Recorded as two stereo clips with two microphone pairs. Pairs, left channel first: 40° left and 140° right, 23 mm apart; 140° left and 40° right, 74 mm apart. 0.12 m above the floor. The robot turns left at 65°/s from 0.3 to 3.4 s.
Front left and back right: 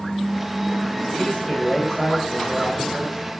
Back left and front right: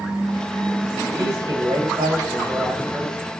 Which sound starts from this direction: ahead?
A man speaking, at 1.1 s.